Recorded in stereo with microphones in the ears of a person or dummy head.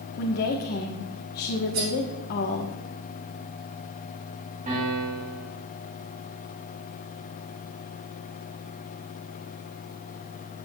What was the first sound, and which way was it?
A woman speaking, 50° left (ahead or behind).